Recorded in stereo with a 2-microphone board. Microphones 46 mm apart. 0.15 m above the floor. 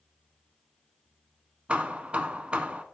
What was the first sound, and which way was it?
Hammering, 25° right (ahead or behind).